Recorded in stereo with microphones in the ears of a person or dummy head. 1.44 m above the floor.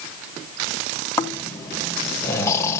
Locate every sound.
1.2 s snoring: 20° left (ahead or behind), 1.4 m